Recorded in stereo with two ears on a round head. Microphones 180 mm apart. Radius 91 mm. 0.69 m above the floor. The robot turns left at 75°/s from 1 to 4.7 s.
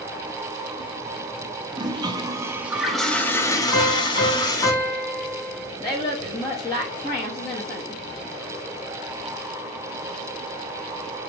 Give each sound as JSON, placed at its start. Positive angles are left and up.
{"t": 1.7, "sound": "a toilet flushing", "side_deg": -20, "distance_m": 0.6}
{"t": 3.7, "sound": "a piano", "azimuth_deg": 90, "distance_m": 1.8}
{"t": 5.8, "sound": "a woman speaking", "side_deg": 20, "distance_m": 0.9}